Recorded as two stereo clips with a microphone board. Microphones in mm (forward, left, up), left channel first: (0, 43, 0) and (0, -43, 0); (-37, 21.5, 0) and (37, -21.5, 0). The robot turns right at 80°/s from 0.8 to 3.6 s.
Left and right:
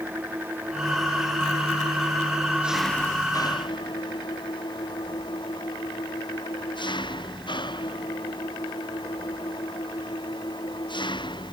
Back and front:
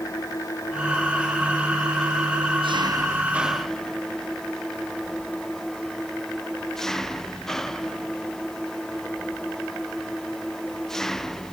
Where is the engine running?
160° right; by 11.5 s 65° left.